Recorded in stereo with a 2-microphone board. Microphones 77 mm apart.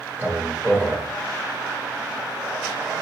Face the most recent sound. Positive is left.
turn(degrees=-25)  # may be behind; listen again after turning